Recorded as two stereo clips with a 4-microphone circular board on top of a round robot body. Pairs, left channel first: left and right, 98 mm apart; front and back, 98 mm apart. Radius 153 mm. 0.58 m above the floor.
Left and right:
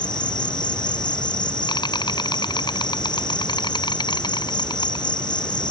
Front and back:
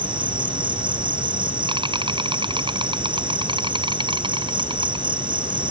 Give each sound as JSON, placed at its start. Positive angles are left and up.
{"t": 0.0, "sound": "an insect", "azimuth_deg": 135}